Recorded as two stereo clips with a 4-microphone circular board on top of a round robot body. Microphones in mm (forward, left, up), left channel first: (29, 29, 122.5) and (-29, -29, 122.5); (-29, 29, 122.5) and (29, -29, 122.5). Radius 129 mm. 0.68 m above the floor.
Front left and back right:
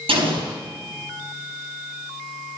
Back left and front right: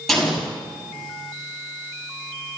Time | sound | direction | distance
0.1 | an explosion | 135° right | 4.5 m